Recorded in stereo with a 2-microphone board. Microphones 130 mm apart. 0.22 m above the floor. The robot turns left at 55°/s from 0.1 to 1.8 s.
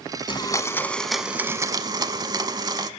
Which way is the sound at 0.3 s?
45° left.